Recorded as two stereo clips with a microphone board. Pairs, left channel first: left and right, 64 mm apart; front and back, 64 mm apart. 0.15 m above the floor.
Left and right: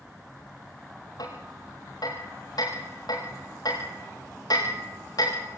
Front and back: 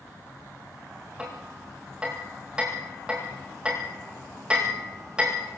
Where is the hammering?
105° left, 7.5 m.